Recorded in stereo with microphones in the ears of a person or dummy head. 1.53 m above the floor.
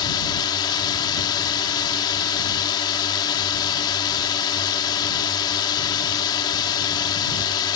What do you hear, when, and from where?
0.0 s a drone: 20° left (ahead or behind)